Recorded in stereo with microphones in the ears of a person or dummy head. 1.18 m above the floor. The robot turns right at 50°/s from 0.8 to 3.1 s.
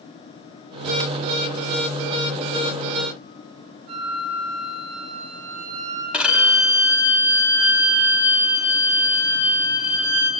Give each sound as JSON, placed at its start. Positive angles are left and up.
{"t": 3.9, "sound": "a flute", "side_deg": -75, "distance_m": 5.0}
{"t": 6.1, "sound": "a violin", "side_deg": -5, "distance_m": 5.0}